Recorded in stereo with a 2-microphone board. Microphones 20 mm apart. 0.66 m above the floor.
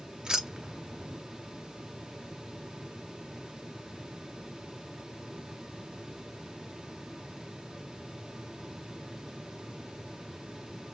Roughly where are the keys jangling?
Right.